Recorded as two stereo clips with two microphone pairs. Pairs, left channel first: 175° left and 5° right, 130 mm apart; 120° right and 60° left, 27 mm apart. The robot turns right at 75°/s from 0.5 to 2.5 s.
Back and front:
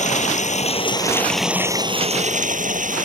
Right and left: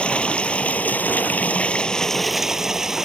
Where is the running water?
165° right; by 3.0 s 15° right.